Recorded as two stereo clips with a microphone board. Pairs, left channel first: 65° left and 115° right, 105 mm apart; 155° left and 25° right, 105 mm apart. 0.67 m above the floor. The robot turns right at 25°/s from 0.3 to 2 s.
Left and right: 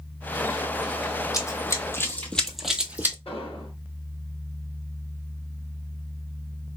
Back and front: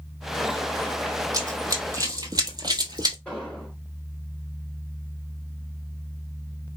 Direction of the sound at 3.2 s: 80° left.